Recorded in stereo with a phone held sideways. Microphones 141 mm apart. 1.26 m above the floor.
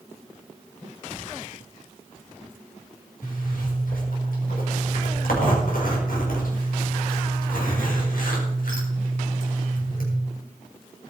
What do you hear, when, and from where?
3.2 s a zipper: 80° left, 4.5 m